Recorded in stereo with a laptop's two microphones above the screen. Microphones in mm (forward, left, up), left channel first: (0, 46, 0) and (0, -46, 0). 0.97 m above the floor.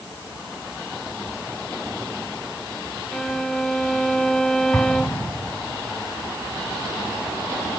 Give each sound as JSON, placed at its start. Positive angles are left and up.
{"t": 3.1, "sound": "a violin", "side_deg": 5}
{"t": 4.7, "sound": "an explosion", "side_deg": 30}